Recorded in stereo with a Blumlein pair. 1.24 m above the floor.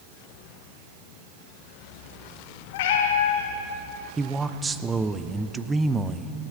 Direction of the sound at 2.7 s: 50° left.